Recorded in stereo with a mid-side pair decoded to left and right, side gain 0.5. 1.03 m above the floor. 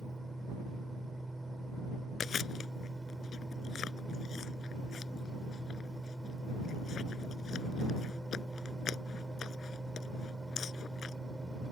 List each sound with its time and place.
0.0 s a fan: 15° right
2.2 s chewing: 50° left